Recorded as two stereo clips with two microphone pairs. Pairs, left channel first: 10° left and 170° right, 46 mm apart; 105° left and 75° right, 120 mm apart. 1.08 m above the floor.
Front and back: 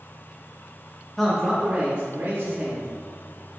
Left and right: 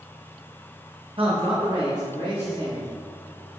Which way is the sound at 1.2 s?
75° right.